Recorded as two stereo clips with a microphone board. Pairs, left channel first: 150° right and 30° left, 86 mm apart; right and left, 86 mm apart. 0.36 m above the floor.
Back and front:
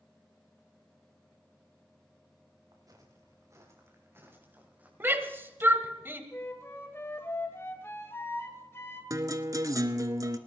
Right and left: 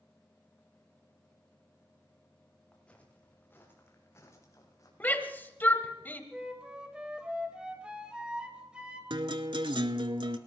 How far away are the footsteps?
About 4.5 m.